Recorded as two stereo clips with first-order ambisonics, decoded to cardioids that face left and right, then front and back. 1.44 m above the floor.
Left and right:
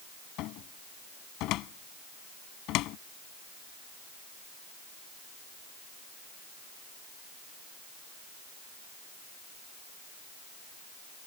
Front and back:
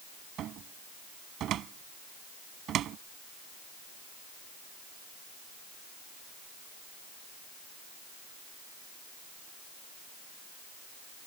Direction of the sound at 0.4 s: 130° left.